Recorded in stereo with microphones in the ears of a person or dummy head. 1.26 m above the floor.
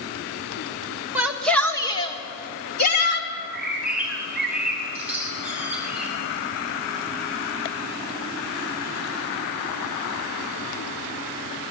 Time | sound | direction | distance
1.1 | a shout | 10° right (ahead or behind) | 1.9 m
3.3 | a bird | 10° right (ahead or behind) | 5 m